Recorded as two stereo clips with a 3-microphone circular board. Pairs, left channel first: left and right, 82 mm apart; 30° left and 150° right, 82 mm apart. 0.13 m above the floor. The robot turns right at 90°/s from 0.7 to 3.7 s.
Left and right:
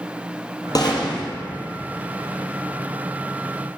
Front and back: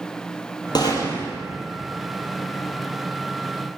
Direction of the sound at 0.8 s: 55° left.